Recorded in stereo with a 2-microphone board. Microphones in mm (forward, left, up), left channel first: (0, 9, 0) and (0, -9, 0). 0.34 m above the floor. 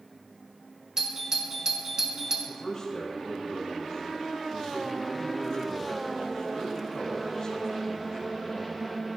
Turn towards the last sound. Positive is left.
turn(degrees=45)  # may be behind; listen again after turning